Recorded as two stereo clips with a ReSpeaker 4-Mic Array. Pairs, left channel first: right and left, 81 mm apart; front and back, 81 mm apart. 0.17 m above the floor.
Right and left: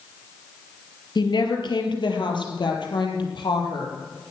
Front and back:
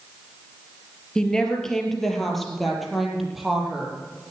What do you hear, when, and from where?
1.1 s a woman speaking: 80° right, 3 m; by 4.0 s 95° right, 5 m